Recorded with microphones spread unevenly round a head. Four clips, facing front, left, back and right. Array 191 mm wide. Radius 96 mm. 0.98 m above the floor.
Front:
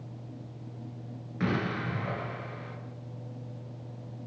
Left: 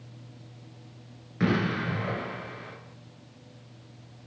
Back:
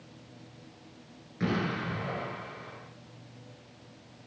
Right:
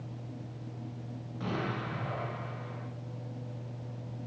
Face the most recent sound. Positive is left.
turn(degrees=80)